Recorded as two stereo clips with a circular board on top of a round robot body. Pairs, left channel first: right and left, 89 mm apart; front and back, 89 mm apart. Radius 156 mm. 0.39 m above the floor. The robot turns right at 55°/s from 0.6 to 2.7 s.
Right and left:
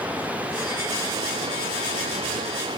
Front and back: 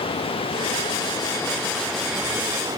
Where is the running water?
15° left; by 2.8 s 130° left.